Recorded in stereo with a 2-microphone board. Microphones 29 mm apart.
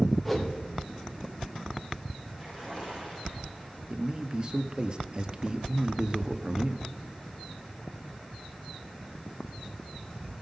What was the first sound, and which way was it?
A whoosh, centre (ahead or behind).